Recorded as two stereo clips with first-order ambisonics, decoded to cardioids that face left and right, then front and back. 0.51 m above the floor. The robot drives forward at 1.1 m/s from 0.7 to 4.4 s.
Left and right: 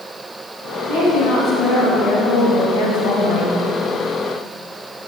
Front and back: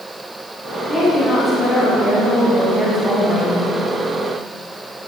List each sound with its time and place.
0.9 s a woman speaking: 55° left, 4 m; by 3.6 s 100° left, 3.5 m